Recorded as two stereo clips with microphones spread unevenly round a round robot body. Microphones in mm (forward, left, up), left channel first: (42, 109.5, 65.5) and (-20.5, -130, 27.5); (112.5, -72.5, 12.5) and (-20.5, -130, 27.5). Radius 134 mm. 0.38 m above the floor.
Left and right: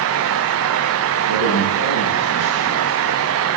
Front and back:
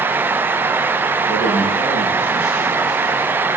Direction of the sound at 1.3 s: 90° left.